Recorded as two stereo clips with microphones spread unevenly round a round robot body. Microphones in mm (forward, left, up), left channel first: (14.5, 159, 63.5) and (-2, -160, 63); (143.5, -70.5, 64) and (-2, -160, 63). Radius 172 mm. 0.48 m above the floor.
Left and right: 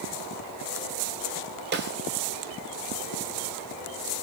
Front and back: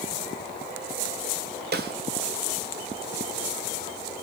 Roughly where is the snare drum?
Behind right.